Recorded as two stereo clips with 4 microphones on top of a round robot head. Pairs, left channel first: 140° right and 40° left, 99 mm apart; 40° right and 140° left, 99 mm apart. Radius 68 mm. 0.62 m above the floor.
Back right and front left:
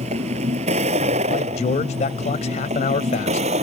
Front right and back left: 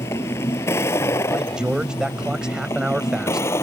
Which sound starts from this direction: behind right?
A man speaking, at 1.3 s.